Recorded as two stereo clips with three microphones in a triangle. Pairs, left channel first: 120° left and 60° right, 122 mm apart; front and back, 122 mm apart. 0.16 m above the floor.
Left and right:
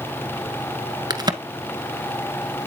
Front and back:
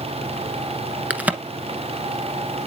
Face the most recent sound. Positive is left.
turn(degrees=-105)